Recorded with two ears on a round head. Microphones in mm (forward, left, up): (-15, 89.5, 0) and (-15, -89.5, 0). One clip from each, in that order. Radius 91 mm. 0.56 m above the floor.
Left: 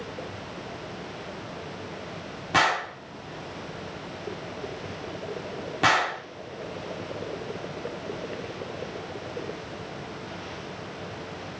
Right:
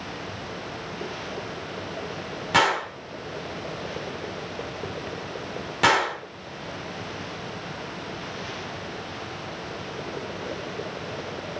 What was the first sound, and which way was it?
A gunshot, 20° right (ahead or behind).